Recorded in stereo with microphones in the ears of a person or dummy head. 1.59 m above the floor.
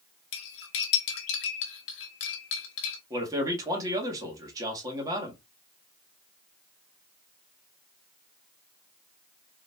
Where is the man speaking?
20° right (ahead or behind), 1.7 m.